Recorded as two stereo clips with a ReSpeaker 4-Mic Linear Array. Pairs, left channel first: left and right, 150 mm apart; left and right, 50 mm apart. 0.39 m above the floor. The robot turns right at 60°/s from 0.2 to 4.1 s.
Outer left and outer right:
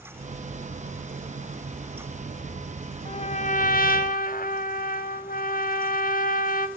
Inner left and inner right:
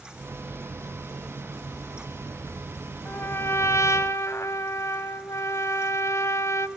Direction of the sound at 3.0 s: 40° left.